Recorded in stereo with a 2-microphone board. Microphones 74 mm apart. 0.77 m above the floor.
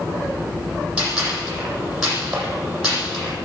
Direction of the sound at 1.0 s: 10° right (ahead or behind).